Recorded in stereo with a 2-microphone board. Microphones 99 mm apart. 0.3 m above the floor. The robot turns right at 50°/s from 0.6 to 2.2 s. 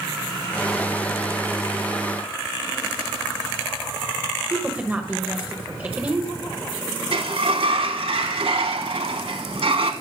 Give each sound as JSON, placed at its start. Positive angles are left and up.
{"t": 4.5, "sound": "a woman speaking", "side_deg": -15, "distance_m": 1.1}
{"t": 7.1, "sound": "a sliding door", "side_deg": -75, "distance_m": 0.9}